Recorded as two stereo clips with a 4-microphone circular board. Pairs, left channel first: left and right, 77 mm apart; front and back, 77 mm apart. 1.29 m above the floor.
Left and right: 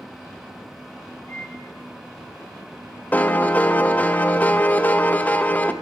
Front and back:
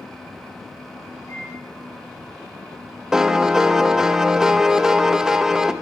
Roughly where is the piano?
Left.